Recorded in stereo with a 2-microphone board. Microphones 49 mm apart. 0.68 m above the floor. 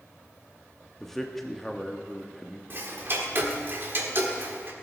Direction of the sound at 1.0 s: 5° left (ahead or behind).